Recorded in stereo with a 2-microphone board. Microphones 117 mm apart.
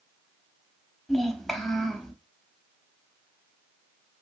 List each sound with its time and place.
1.1 s a child speaking: centre (ahead or behind), 0.7 m